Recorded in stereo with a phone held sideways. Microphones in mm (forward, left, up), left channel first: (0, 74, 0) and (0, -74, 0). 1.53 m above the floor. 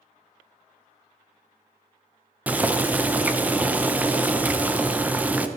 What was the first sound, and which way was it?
Boiling, 10° right (ahead or behind).